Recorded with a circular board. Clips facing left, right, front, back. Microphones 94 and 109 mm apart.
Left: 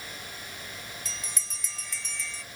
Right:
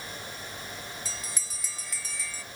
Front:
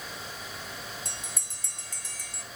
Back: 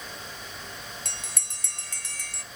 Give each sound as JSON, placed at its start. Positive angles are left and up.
{"t": 1.1, "sound": "a bell", "azimuth_deg": -175, "distance_m": 0.6}